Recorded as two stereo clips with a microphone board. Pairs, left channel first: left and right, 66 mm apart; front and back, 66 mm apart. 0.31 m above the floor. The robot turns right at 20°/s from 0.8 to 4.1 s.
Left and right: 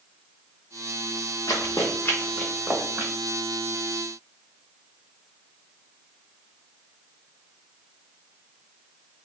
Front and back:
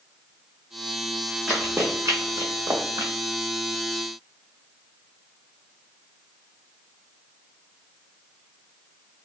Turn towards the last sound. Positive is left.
turn(degrees=-125)